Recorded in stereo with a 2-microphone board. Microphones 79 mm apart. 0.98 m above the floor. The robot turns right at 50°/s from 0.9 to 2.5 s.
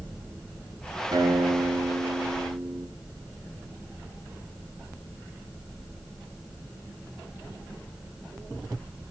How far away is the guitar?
About 2.5 m.